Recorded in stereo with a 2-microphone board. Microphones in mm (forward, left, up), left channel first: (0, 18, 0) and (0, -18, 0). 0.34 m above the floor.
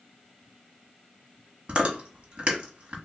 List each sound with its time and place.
1.7 s chewing: 35° right (ahead or behind), 1.2 m